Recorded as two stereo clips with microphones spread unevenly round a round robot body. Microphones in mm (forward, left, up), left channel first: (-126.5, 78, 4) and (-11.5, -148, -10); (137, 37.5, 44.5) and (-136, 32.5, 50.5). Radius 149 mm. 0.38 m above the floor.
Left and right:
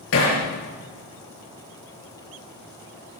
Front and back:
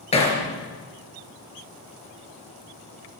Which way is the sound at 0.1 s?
70° left.